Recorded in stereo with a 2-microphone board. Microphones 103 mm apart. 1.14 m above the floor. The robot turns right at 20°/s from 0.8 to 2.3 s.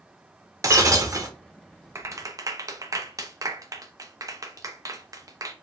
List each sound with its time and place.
0.6 s breaking glass: 35° right (ahead or behind), 0.9 m
1.9 s a clap: 30° right (ahead or behind), 0.7 m; by 5.5 s 35° right (ahead or behind), 0.7 m